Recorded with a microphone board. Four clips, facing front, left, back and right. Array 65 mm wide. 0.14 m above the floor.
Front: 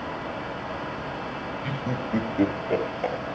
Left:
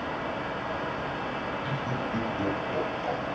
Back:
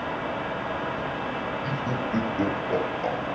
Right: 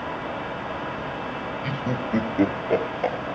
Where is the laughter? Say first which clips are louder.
Right 3 dB, back 2 dB; 75° right, 3.5 m.